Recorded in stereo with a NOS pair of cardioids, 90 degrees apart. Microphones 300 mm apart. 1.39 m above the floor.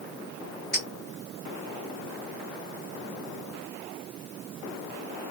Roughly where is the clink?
Ahead left.